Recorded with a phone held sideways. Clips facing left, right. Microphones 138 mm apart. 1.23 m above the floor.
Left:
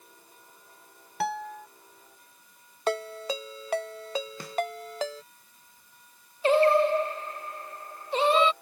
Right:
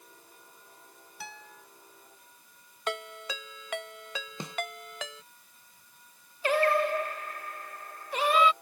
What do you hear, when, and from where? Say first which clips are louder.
1.2 s a guitar: left 17 dB; 75° left (ahead or behind)
2.9 s a ringtone: left 7 dB; 35° left (ahead or behind)
4.4 s a snare drum: right 1 dB; 20° right (ahead or behind)
6.4 s singing: left 5 dB; 25° left (ahead or behind)